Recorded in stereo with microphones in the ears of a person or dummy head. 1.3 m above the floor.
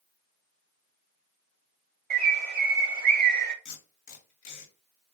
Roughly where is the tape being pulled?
Left.